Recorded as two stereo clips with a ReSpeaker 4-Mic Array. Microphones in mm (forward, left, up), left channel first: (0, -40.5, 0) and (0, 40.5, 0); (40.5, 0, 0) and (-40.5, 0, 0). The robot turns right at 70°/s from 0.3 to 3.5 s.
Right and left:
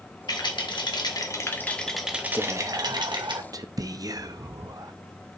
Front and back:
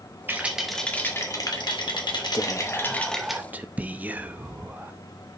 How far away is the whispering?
About 0.6 m.